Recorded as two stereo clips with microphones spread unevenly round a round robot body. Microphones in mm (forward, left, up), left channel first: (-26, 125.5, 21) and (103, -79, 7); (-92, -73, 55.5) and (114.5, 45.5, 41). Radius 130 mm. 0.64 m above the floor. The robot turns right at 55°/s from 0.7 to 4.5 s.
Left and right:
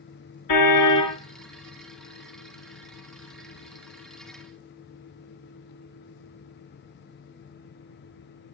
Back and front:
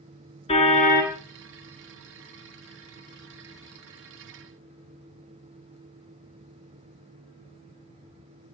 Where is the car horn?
140° left, 3.5 m; by 1.2 s 165° left, 3.5 m.